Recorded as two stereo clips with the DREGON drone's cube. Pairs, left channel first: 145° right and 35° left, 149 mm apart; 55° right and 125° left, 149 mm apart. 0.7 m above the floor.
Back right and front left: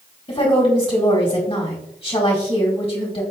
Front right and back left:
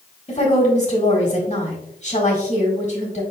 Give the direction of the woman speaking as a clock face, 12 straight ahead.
3 o'clock.